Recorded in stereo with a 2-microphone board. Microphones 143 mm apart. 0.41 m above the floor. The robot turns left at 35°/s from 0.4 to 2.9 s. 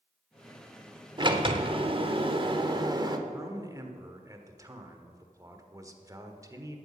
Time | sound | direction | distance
1.2 | a sliding door | 65° right | 0.8 m
3.3 | a man speaking | 20° right (ahead or behind) | 1.0 m